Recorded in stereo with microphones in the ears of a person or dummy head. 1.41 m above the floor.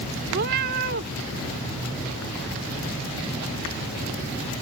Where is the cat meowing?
45° right (ahead or behind).